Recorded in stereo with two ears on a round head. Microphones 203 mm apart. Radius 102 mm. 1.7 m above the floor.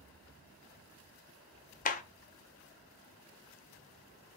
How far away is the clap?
About 0.5 m.